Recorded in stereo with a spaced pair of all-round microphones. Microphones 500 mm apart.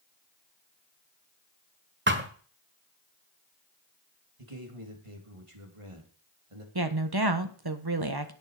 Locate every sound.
2.1 s a thud: 20° right (ahead or behind), 1.4 m
4.4 s a man speaking: 85° right, 3 m
6.8 s a woman speaking: 50° right (ahead or behind), 1.3 m